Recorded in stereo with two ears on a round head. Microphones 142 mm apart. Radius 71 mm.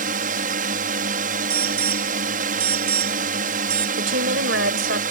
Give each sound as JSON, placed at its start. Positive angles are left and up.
{"t": 0.0, "sound": "a drone", "side_deg": -55}
{"t": 1.5, "sound": "an alarm", "side_deg": -70}
{"t": 4.0, "sound": "a woman speaking", "side_deg": -85}